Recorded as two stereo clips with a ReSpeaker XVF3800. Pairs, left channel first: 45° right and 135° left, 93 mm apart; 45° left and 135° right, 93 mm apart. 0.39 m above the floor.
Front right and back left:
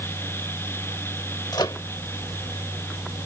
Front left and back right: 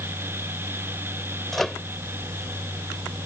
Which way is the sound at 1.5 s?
40° right.